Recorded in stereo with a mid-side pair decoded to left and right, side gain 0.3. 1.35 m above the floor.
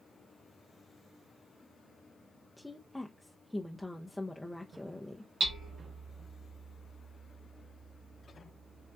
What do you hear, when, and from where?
2.6 s a woman speaking: 10° left, 0.6 m
5.4 s hammering: 65° right, 2 m